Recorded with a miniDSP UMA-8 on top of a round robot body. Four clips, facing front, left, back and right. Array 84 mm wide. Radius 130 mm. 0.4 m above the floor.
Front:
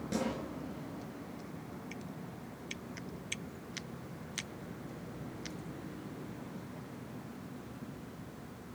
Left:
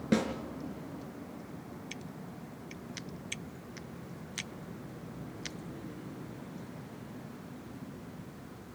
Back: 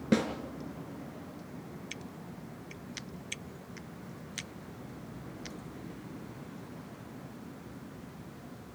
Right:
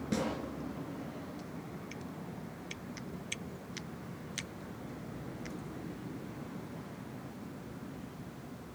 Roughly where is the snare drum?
Behind left.